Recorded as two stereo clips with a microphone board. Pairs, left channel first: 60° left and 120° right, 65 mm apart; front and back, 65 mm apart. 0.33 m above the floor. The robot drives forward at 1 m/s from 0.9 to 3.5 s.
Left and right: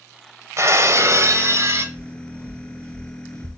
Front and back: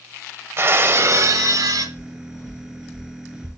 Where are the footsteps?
50° right, 4 m; by 3.5 s 115° right, 1.7 m.